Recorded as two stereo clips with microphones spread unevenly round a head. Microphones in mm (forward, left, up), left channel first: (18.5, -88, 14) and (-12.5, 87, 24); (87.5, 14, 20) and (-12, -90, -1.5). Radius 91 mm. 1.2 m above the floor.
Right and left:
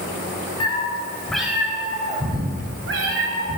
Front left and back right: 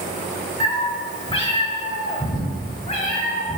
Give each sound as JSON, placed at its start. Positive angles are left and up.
{"t": 0.6, "sound": "a cat meowing", "azimuth_deg": -15, "distance_m": 2.0}